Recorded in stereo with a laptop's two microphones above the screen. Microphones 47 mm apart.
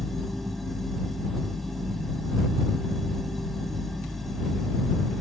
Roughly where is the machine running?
Centre.